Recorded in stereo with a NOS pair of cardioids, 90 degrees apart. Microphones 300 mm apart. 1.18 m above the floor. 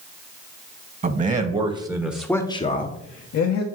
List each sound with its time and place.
1.0 s a man speaking: 30° right, 1.5 m; by 3.6 s 75° left, 1.1 m